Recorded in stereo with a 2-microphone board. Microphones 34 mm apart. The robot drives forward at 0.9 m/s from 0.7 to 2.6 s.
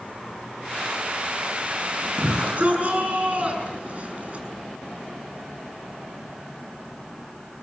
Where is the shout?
50° right (ahead or behind), 6.5 m; by 4.5 s 45° right (ahead or behind), 6.5 m.